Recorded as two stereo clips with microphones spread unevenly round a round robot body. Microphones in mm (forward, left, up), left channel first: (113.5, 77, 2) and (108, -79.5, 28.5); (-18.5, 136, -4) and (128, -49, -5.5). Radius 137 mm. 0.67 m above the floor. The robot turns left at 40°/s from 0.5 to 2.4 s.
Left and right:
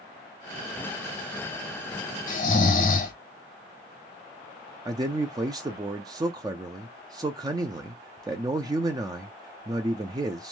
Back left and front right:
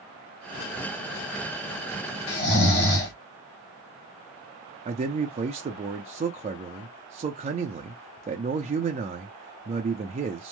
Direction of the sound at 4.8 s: 30° right.